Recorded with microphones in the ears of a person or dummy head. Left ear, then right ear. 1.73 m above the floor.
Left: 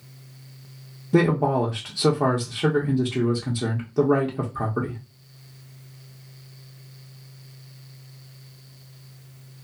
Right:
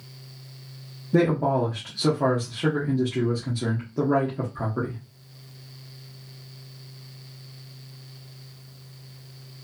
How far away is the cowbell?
No cowbell in this recording.